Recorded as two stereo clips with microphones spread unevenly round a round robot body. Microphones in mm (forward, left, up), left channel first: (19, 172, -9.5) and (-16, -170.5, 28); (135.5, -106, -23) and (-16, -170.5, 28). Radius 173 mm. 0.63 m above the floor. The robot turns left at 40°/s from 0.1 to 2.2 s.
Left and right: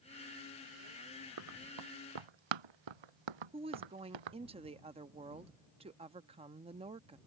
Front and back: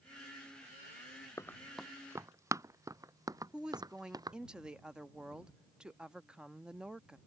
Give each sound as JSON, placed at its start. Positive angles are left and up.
{"t": 1.4, "sound": "running footsteps", "azimuth_deg": -50}
{"t": 3.5, "sound": "a woman speaking", "azimuth_deg": -35}